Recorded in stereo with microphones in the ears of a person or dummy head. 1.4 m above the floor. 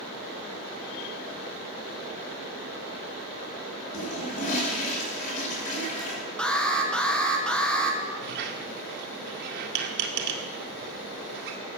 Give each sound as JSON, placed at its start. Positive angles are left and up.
{"t": 3.9, "sound": "a toilet flushing", "side_deg": 40, "distance_m": 7.0}
{"t": 6.4, "sound": "an alarm", "side_deg": 0, "distance_m": 2.0}
{"t": 8.2, "sound": "a squeak", "side_deg": -65, "distance_m": 1.8}